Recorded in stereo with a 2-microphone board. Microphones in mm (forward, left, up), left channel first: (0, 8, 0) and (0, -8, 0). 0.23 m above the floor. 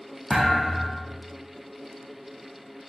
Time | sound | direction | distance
0.3 | a thud | 45° left (ahead or behind) | 2.5 m